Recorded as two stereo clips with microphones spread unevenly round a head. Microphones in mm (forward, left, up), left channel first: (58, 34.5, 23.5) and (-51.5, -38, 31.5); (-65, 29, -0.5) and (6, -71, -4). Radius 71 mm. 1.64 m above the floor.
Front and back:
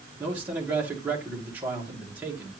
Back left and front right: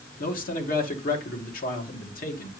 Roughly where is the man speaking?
Behind left.